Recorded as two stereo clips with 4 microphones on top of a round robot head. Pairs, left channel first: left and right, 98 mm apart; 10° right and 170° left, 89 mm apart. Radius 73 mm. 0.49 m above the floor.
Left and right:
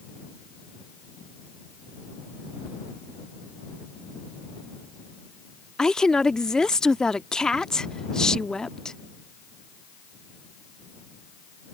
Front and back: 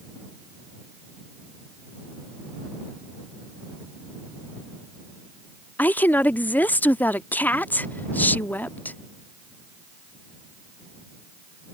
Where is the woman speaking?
20° left.